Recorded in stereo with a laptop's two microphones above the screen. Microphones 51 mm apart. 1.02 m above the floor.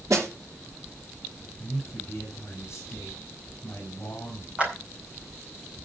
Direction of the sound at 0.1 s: 75° right (ahead or behind).